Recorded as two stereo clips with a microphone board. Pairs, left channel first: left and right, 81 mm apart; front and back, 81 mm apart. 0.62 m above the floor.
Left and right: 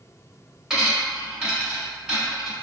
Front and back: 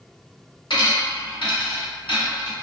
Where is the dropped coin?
5° right, 1.2 m.